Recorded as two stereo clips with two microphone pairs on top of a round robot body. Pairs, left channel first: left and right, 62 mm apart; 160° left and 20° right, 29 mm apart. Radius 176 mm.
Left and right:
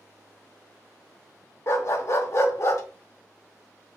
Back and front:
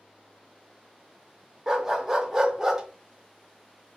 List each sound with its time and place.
1.7 s a dog barking: 50° left, 0.9 m